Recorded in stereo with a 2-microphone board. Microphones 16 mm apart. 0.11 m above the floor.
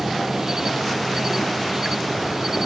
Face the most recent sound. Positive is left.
turn(degrees=-35)  # may be behind; listen again after turning